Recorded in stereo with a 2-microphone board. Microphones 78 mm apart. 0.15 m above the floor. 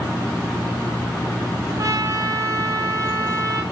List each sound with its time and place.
1.8 s a trumpet: 50° right (ahead or behind), 1.8 m